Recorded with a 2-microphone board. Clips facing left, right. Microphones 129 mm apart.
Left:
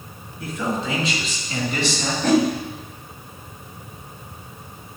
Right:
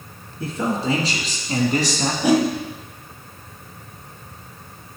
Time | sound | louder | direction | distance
0.4 | a man speaking | right 2 dB | 35° right (ahead or behind) | 3.5 m
2.2 | a whoosh | even | 10° right (ahead or behind) | 1.2 m